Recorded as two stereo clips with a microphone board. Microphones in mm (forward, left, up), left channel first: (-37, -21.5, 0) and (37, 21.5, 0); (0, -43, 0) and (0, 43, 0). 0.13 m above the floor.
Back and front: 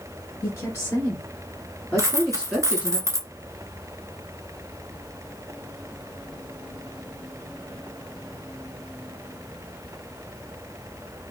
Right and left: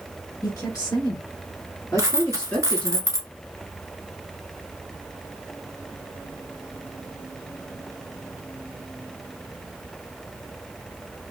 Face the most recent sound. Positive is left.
turn(degrees=60)